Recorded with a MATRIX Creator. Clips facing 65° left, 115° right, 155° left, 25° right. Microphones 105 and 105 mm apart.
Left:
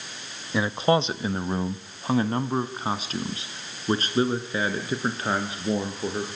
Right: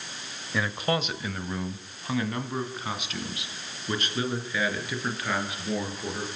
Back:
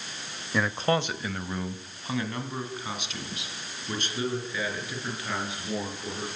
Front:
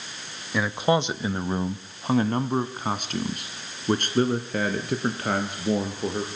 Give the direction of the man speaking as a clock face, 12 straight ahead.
10 o'clock.